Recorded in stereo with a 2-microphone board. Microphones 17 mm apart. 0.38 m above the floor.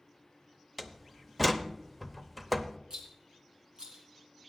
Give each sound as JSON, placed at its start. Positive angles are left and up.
{"t": 0.8, "sound": "a door slam", "side_deg": -5, "distance_m": 0.8}
{"t": 2.9, "sound": "a rattle", "side_deg": -65, "distance_m": 3.0}